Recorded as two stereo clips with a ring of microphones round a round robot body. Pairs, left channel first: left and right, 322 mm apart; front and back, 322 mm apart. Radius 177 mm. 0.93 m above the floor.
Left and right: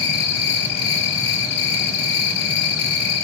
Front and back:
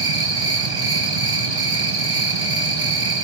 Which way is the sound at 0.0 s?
105° left.